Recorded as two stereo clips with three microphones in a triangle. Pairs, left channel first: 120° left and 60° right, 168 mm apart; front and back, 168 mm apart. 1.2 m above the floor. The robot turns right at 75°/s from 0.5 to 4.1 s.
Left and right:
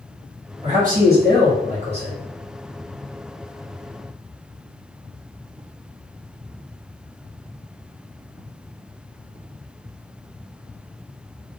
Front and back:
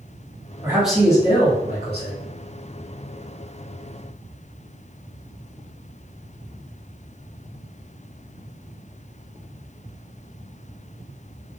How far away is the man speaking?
About 1.1 m.